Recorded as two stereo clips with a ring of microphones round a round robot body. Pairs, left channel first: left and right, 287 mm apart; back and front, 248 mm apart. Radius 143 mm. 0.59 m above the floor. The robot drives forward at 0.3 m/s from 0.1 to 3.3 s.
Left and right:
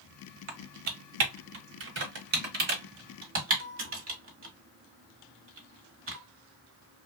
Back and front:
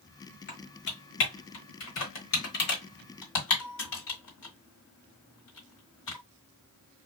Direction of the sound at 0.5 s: 115° right.